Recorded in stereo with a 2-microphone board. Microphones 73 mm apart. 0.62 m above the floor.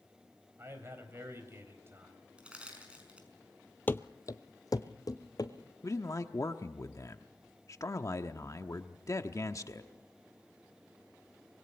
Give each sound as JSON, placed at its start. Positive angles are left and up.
{"t": 0.6, "sound": "a man speaking", "side_deg": -35, "distance_m": 4.0}
{"t": 2.4, "sound": "crushing", "side_deg": -15, "distance_m": 5.0}
{"t": 3.9, "sound": "running footsteps", "side_deg": 25, "distance_m": 0.7}
{"t": 5.8, "sound": "a man speaking", "side_deg": 45, "distance_m": 1.0}